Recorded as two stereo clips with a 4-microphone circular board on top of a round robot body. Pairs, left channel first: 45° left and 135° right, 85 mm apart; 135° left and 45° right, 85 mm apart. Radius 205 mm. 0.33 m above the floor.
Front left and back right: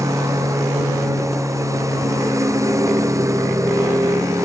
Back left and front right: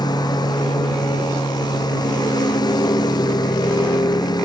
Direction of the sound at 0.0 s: 175° left.